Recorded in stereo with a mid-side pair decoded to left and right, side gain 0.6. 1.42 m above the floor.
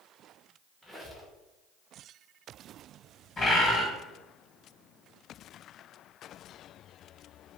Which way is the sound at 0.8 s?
Straight ahead.